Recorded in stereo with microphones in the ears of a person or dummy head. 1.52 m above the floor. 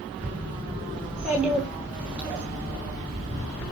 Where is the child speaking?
5° right (ahead or behind), 4.5 m.